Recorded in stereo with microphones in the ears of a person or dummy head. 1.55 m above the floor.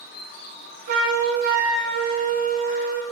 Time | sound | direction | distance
0.9 | a flute | 40° right (ahead or behind) | 0.7 m